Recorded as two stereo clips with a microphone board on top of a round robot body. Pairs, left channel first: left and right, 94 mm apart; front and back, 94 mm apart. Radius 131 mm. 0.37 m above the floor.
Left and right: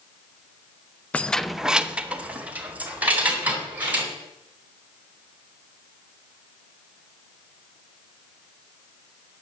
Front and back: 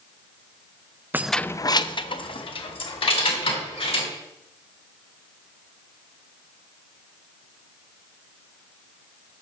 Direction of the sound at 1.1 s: 145° left.